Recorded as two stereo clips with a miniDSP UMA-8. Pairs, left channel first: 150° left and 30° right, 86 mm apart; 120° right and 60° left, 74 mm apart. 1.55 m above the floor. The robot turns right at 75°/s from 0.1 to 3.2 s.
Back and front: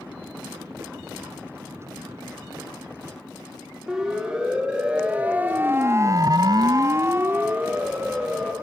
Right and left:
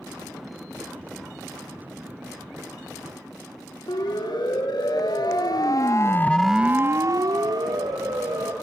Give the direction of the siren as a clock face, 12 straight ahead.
4 o'clock.